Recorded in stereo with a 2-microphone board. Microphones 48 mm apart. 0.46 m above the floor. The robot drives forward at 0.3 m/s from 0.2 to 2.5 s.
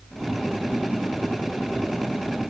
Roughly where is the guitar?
No guitar in this recording.